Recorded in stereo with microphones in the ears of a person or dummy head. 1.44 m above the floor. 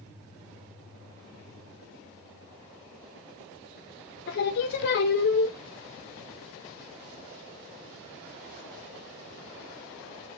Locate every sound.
4.3 s singing: 60° left (ahead or behind), 0.6 m